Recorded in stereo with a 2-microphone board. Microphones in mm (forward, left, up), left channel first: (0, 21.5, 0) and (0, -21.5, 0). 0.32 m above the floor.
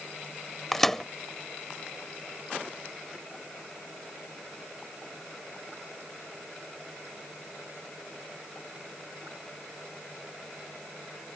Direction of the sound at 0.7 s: 10° left (ahead or behind).